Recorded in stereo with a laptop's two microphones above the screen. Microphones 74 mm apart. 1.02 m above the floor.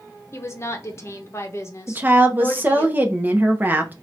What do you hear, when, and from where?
0.3 s a woman speaking: 40° left (ahead or behind), 0.9 m
1.9 s a woman speaking: 25° right (ahead or behind), 0.8 m